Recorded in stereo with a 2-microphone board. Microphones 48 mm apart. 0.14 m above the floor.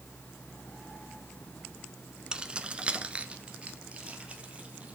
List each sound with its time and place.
2.3 s keys jangling: 15° right (ahead or behind), 0.8 m; by 5.0 s 25° right (ahead or behind), 2.5 m